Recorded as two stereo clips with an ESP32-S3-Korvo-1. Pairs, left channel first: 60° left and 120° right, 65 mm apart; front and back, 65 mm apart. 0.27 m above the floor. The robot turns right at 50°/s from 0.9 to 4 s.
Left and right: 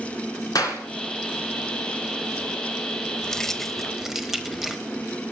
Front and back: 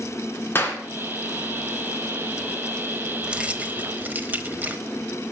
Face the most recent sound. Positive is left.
turn(degrees=160)